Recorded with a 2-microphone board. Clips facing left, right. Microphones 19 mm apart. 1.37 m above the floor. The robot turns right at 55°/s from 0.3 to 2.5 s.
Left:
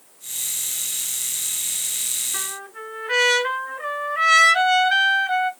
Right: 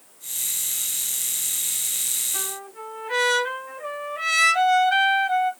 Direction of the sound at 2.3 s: 35° left (ahead or behind).